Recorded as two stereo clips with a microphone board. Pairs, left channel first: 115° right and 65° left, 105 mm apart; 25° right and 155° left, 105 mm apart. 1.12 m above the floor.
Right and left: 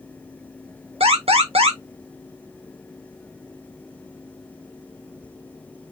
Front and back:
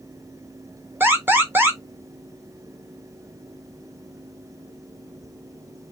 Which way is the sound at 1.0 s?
85° left.